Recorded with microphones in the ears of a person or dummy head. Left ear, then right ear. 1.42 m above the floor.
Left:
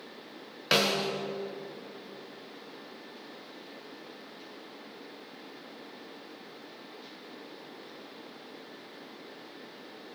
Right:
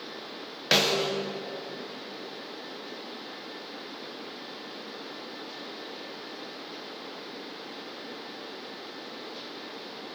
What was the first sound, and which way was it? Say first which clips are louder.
A snare drum: right 3 dB; 5° right (ahead or behind).